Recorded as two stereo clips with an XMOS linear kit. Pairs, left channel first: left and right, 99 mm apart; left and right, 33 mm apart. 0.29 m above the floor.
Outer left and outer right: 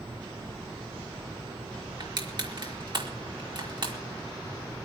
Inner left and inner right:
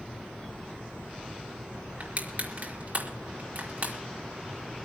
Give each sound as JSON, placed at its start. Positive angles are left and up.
{"t": 2.0, "sound": "crushing", "side_deg": -50, "distance_m": 4.5}